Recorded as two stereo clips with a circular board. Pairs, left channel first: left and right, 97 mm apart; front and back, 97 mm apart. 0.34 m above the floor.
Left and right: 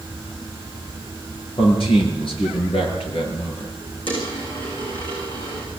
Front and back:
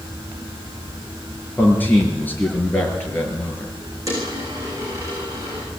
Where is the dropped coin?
125° left, 8.5 m.